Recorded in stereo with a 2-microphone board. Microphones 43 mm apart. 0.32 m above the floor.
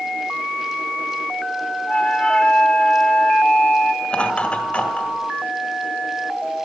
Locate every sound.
1.9 s a flute: 25° left (ahead or behind), 0.6 m
4.0 s laughter: 30° left (ahead or behind), 1.6 m